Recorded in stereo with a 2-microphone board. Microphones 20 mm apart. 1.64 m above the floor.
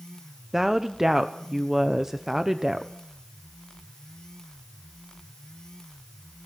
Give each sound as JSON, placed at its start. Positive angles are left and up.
{"t": 0.5, "sound": "a woman speaking", "side_deg": -15, "distance_m": 1.0}